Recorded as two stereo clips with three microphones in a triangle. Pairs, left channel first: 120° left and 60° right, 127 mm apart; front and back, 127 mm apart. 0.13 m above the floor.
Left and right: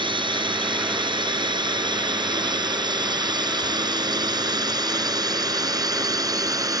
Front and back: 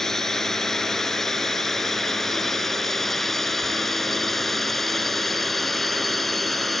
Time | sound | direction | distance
0.0 | a drone | 85° right | ?